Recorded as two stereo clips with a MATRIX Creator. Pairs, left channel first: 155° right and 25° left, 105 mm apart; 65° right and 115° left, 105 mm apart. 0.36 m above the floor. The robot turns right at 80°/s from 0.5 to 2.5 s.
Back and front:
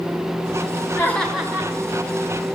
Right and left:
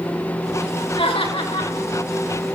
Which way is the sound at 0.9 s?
95° right.